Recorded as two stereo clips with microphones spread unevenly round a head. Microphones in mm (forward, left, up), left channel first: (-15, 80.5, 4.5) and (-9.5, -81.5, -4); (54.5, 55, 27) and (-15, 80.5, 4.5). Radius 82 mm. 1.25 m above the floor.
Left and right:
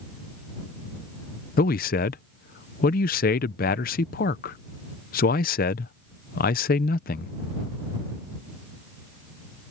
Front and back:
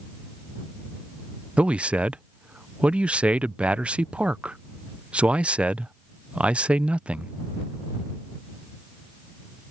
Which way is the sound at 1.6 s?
105° left.